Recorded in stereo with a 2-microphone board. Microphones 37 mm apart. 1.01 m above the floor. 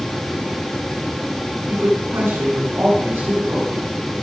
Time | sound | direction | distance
1.7 | a woman speaking | 90° right | 8.5 m